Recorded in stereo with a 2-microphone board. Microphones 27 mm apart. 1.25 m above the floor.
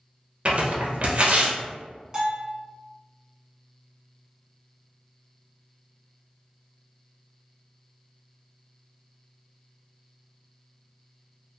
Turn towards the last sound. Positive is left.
turn(degrees=-20)  # may be behind; listen again after turning